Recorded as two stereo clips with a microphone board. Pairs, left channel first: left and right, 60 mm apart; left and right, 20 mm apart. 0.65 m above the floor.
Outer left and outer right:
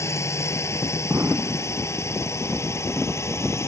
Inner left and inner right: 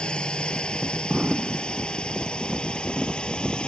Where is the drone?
50° left (ahead or behind).